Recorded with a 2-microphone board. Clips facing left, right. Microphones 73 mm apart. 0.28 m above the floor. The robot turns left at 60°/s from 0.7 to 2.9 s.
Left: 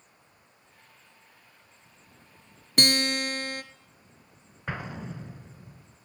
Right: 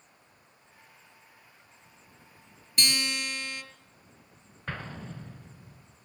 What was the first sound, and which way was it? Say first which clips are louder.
A guitar: left 5 dB; 60° left (ahead or behind).